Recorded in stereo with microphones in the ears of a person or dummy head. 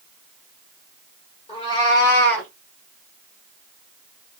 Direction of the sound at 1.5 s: 35° left (ahead or behind).